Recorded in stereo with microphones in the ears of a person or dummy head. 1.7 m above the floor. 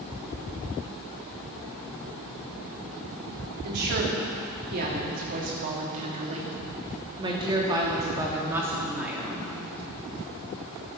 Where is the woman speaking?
55° right (ahead or behind), 3.5 m; by 9.5 s centre (ahead or behind), 3 m.